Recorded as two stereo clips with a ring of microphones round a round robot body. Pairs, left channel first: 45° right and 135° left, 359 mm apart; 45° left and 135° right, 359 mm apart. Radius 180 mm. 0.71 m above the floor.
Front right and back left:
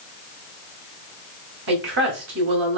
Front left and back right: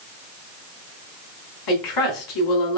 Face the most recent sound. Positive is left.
turn(degrees=75)